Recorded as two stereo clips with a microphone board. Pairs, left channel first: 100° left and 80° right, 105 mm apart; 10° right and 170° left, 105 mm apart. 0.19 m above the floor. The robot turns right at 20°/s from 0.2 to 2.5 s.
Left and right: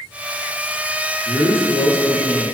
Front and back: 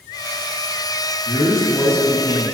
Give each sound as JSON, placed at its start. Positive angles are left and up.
{"t": 1.2, "sound": "a man speaking", "azimuth_deg": 135, "distance_m": 1.3}